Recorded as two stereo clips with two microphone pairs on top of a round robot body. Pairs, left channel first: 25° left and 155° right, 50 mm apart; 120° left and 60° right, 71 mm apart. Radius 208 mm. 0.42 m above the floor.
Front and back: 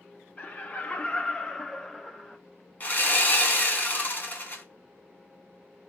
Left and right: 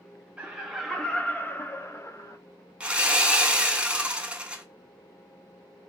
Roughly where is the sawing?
Ahead.